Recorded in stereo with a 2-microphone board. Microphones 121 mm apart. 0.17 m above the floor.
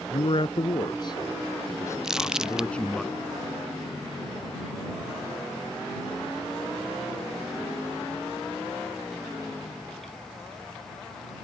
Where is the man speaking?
55° left (ahead or behind); by 3.0 s 5° left (ahead or behind).